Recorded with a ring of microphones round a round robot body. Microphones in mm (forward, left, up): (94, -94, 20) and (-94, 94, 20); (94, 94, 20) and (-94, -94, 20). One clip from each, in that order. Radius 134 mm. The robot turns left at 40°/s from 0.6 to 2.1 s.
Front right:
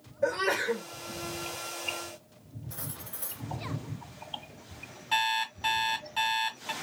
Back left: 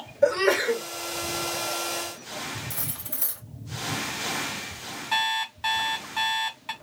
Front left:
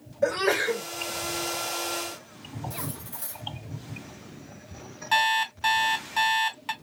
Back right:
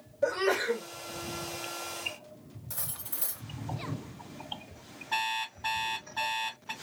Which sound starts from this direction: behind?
Cutlery clinking, at 2.7 s.